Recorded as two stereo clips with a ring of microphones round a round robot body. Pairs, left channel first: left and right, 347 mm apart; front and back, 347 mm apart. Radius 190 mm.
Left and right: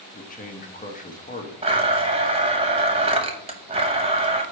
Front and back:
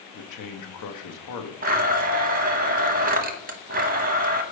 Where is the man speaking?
25° left, 1.1 m.